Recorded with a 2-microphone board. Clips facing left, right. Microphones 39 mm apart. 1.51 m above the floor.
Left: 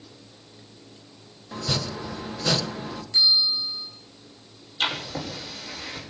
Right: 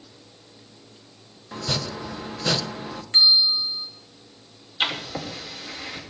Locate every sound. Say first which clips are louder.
1.5 s chopping: even; 10° right (ahead or behind), 1.3 m
3.1 s a bell: right 3 dB; 55° right (ahead or behind), 3.5 m
4.8 s writing: right 1 dB; 20° right (ahead or behind), 6 m